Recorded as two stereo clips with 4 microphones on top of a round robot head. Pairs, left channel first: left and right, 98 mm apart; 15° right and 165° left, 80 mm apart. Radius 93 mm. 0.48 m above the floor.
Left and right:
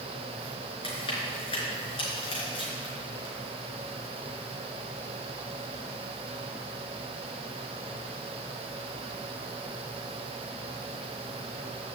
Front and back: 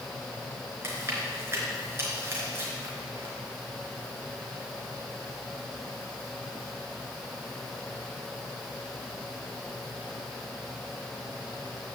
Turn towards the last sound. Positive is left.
turn(degrees=110)